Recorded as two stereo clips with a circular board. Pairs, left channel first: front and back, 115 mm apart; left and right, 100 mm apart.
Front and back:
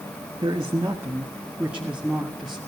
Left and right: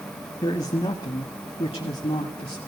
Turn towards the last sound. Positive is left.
turn(degrees=90)